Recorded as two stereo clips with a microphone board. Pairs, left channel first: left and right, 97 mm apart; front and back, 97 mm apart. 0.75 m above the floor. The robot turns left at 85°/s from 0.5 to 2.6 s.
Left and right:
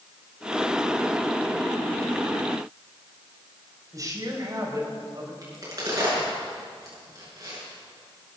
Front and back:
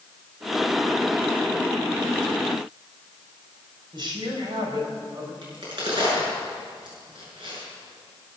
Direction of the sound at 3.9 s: 145° right.